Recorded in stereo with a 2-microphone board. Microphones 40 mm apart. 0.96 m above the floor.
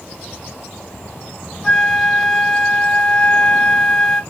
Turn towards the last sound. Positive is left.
turn(degrees=10)  # may be behind; listen again after turning